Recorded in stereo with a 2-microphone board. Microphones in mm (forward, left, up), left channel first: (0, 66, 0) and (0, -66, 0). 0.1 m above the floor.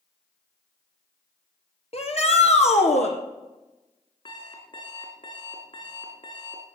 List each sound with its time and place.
1.9 s a shout: 55° left (ahead or behind), 2.5 m; by 3.1 s 65° left (ahead or behind), 3.5 m
4.2 s an alarm clock: 45° left (ahead or behind), 3.5 m